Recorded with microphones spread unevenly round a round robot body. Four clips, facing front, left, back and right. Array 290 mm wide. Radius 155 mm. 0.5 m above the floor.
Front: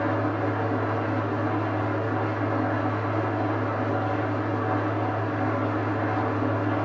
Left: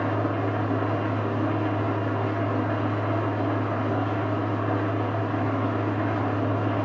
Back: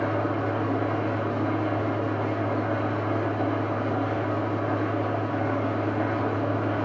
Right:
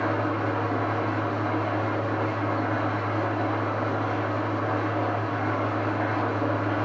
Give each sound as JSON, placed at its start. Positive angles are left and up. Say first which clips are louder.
{"t": 0.0, "sound": "an engine running", "louder": "even, front 1 dB", "azimuth_deg": 130, "distance_m": 3.0}